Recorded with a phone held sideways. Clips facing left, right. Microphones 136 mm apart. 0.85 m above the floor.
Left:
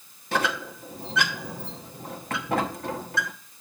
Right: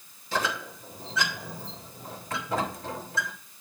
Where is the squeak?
70° left (ahead or behind), 1.0 m.